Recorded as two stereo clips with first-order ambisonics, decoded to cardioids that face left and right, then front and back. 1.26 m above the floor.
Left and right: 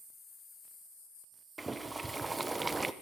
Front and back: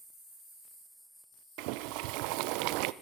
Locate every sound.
1.6 s boiling: 170° right, 0.7 m